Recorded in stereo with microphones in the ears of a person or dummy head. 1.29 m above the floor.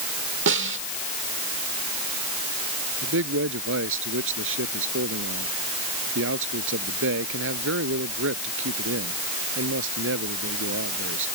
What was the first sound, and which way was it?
A snare drum, 65° right (ahead or behind).